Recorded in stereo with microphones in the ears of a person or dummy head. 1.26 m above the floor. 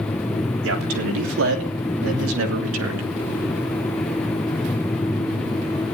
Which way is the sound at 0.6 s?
70° right (ahead or behind).